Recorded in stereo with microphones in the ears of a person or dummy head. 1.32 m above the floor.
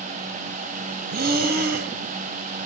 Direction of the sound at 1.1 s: 45° right (ahead or behind).